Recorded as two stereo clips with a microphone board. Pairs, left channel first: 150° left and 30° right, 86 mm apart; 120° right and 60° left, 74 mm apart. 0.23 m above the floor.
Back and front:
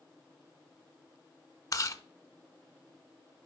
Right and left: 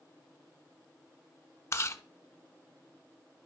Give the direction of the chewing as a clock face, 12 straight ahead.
6 o'clock.